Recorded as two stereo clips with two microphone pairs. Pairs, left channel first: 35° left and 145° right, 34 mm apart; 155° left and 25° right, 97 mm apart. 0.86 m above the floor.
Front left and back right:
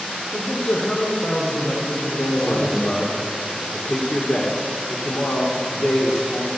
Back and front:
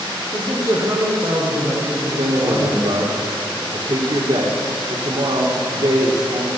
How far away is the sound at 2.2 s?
About 1.9 m.